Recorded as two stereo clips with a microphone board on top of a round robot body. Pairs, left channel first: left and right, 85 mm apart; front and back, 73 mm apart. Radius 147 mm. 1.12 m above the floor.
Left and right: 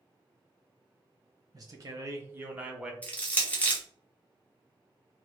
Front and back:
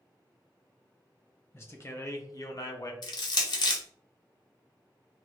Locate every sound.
1.5 s a man speaking: 50° right, 1.2 m; by 2.9 s 10° right, 0.9 m
3.0 s crushing: 15° left, 0.8 m